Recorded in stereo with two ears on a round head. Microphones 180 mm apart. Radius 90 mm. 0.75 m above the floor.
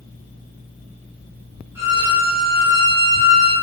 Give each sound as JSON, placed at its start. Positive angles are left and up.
{"t": 1.8, "sound": "a violin", "side_deg": -15, "distance_m": 2.5}